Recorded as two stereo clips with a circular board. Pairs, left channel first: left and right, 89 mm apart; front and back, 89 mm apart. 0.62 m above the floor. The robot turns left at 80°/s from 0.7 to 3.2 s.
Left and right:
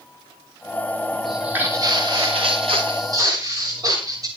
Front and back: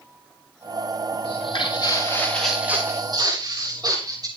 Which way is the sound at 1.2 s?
5° left.